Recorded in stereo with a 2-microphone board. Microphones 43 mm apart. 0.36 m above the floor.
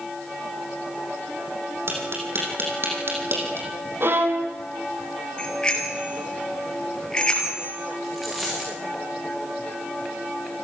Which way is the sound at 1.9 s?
60° right (ahead or behind).